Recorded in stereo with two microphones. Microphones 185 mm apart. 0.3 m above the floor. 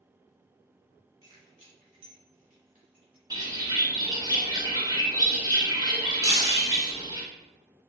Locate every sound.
1.2 s keys jangling: 25° right (ahead or behind), 1.7 m; by 3.2 s 50° right (ahead or behind), 2.5 m
3.3 s a bird: 20° right (ahead or behind), 0.7 m
6.2 s breaking glass: 35° left (ahead or behind), 0.8 m